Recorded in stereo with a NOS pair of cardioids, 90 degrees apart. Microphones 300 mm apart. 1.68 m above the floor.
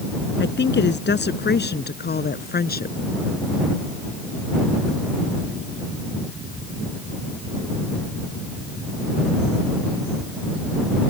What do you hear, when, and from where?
0.4 s a woman speaking: 35° left; by 3.0 s 30° left